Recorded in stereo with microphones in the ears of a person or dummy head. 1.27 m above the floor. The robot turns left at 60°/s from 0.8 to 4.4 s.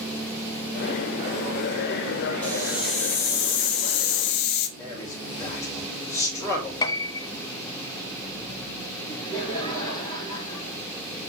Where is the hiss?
175° left, 1.2 m; by 4.7 s 55° left, 1.2 m.